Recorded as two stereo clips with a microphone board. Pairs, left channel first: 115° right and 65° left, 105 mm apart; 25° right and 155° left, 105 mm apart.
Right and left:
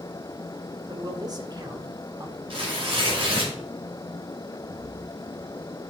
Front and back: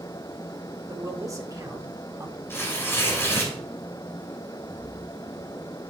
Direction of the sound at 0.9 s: 105° left.